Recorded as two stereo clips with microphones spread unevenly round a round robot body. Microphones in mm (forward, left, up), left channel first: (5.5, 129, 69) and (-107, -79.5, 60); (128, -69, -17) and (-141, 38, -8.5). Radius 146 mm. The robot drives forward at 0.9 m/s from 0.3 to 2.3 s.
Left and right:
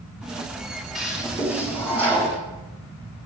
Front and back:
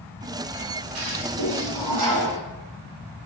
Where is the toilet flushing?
155° left, 3 m; by 2.4 s 160° left, 4 m.